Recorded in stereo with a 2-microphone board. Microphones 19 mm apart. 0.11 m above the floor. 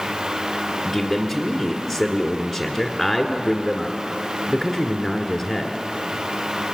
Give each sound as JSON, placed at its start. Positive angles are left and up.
{"t": 0.8, "sound": "a man speaking", "side_deg": 0, "distance_m": 1.5}